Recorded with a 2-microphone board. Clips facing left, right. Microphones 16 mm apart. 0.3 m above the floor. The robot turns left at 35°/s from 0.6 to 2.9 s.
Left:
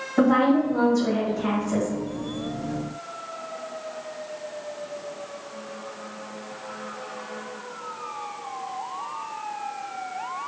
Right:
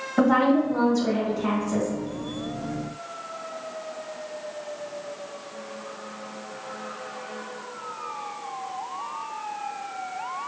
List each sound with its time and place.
0.2 s a woman speaking: straight behind, 1.4 m; by 1.9 s 135° left, 1.4 m